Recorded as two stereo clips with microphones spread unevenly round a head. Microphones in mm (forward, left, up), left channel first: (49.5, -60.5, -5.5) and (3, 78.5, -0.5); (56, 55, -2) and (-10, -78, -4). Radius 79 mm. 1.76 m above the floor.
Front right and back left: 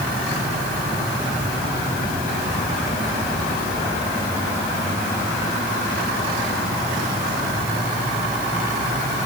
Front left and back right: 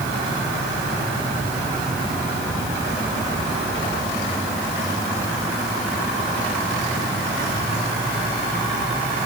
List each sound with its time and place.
Only background noise.